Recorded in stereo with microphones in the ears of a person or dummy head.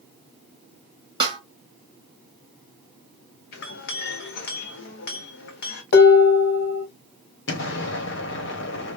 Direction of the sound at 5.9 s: 55° left (ahead or behind).